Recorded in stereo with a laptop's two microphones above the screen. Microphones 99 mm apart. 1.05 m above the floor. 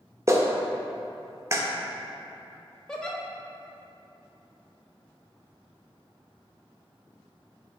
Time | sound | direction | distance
0.3 | a clap | 30° right (ahead or behind) | 0.6 m
2.9 | a giggle | 5° left (ahead or behind) | 0.6 m